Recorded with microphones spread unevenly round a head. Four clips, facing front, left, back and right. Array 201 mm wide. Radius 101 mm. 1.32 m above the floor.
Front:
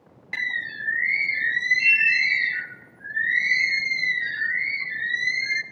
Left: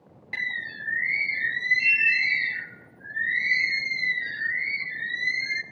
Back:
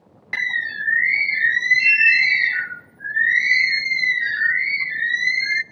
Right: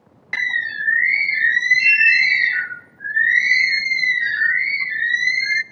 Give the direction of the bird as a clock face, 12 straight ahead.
4 o'clock.